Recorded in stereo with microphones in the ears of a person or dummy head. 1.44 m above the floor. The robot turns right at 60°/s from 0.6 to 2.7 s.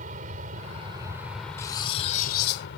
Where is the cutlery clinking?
20° left; by 2.7 s 85° left.